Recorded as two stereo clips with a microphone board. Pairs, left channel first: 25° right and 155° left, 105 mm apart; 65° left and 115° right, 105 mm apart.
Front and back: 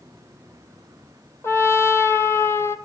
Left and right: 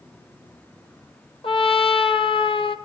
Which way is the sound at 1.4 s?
40° left.